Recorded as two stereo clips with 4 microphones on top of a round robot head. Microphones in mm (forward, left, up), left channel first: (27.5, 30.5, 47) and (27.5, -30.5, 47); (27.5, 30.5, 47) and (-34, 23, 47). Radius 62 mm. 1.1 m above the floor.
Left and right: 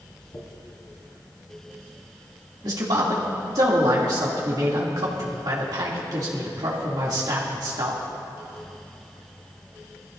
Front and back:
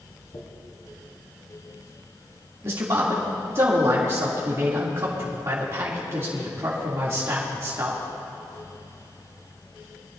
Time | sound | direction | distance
0.3 | a dropped coin | 40° left | 2.0 m
2.6 | a man speaking | 120° right | 2.5 m